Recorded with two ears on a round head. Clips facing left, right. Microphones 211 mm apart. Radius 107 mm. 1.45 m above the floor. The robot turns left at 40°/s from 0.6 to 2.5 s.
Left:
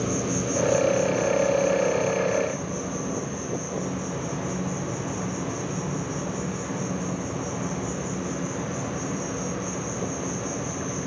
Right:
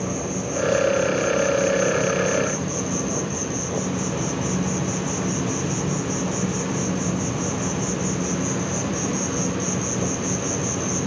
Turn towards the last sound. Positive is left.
turn(degrees=-55)